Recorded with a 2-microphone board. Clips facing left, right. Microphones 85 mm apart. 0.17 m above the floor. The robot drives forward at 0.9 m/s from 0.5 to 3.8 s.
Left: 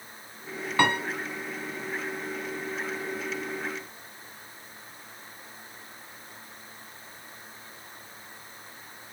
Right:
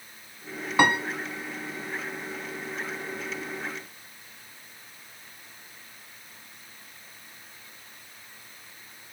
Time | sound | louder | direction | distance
0.8 | a piano | right 2 dB | 15° right (ahead or behind) | 1.4 m